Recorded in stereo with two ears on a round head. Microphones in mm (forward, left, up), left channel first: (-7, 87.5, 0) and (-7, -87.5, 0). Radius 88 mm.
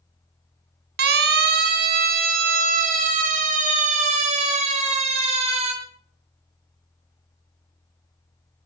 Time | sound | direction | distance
1.0 | a siren | 60° right (ahead or behind) | 3 m